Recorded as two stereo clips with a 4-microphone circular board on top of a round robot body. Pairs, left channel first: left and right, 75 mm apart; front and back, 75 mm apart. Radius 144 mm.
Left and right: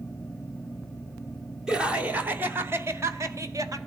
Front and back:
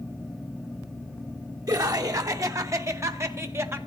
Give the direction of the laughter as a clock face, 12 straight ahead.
6 o'clock.